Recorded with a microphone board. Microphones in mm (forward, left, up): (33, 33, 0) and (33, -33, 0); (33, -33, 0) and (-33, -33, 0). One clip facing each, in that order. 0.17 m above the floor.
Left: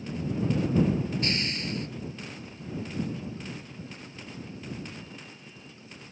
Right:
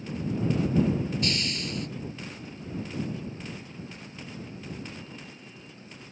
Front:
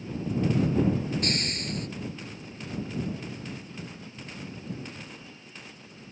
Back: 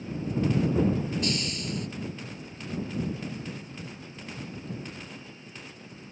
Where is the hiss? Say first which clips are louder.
Even, even; 35° left.